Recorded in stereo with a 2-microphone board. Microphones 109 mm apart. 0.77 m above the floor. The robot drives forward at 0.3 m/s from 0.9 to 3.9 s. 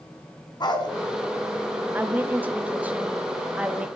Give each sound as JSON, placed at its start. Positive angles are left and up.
{"t": 0.6, "sound": "a dog barking", "side_deg": 40, "distance_m": 1.7}
{"t": 1.9, "sound": "a woman speaking", "side_deg": -15, "distance_m": 0.8}